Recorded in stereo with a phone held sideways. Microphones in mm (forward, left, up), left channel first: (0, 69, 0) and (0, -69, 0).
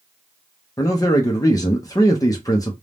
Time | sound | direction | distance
0.8 | a man speaking | 25° left (ahead or behind) | 0.5 m